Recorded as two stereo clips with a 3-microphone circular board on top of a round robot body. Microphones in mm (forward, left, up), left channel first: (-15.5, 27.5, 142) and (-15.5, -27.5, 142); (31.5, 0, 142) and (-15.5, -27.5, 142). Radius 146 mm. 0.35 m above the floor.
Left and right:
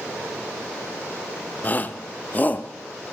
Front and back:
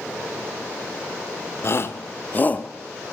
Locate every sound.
1.6 s a shout: 45° left, 1.3 m; by 2.7 s 70° left, 1.0 m